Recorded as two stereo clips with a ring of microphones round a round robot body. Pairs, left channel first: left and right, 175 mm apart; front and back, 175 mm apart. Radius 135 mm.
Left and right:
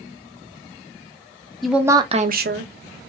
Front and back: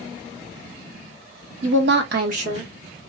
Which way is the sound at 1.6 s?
Straight behind.